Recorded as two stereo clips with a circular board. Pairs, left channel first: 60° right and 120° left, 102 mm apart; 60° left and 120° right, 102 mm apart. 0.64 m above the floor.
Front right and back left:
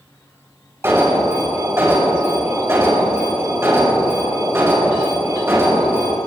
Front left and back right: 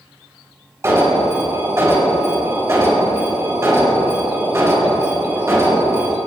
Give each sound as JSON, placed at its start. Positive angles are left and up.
{"t": 0.8, "sound": "an alarm", "azimuth_deg": 180, "distance_m": 4.5}